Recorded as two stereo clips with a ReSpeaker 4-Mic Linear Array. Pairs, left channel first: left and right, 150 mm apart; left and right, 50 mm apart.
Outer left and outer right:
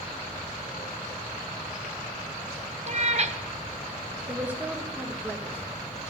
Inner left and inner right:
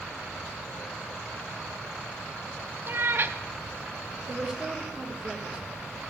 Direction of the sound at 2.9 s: 50° right (ahead or behind).